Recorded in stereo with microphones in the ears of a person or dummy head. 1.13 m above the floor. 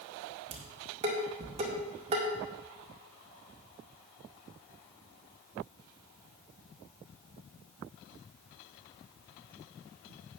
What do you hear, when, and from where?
0.5 s dishes clattering: 30° right (ahead or behind), 2.0 m